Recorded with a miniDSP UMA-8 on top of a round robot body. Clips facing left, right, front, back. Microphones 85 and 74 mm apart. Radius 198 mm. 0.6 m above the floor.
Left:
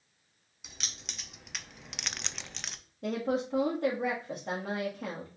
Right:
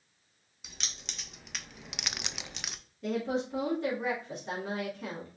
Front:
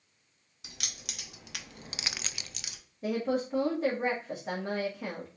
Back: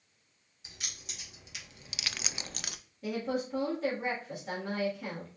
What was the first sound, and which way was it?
Keys jangling, straight ahead.